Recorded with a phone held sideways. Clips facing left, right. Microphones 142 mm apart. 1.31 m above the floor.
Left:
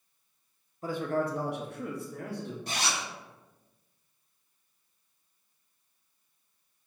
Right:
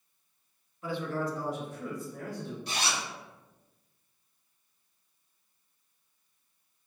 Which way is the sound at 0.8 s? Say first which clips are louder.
Left 3 dB; 40° left (ahead or behind).